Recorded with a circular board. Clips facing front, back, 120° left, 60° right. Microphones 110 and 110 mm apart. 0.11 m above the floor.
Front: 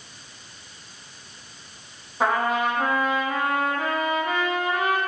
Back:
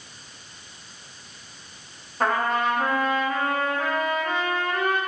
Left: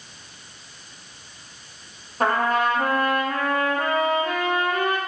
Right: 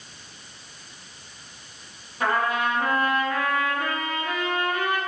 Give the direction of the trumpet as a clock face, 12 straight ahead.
9 o'clock.